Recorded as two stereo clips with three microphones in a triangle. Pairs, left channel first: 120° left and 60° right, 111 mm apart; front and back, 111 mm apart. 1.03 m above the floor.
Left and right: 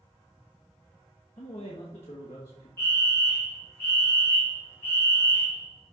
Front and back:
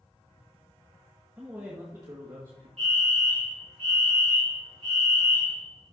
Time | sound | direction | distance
1.4 | a man speaking | 105° left | 1.2 m
2.8 | a fire alarm | 170° right | 4.5 m